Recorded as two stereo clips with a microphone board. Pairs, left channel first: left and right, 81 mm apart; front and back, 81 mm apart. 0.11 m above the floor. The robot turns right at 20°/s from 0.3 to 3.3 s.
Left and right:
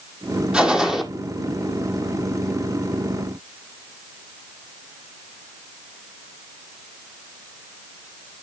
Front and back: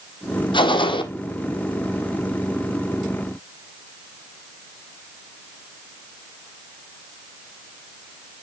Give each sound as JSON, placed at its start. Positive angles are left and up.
{"t": 0.5, "sound": "a gunshot", "azimuth_deg": -10, "distance_m": 1.7}